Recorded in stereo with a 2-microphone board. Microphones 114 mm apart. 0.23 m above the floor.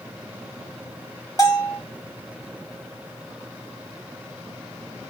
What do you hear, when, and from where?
1.4 s a bell: 30° left (ahead or behind), 1.6 m